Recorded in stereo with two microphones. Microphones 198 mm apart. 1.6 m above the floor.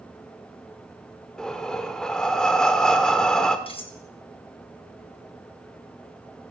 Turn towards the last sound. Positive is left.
turn(degrees=25)  # may be behind; listen again after turning